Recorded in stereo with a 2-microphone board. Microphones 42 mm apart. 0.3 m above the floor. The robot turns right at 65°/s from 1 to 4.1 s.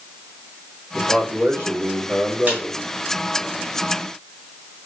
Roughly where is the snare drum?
Right.